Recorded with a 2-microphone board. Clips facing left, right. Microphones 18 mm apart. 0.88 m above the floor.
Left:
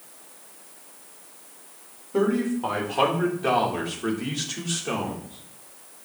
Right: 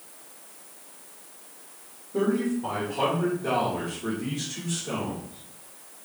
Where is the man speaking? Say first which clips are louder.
Left 2 dB; 55° left (ahead or behind), 3.5 m; by 6.1 s 45° left (ahead or behind), 3.5 m.